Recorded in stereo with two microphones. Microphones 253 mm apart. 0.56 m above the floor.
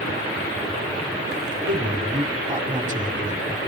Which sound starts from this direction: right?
A man speaking, at 1.7 s.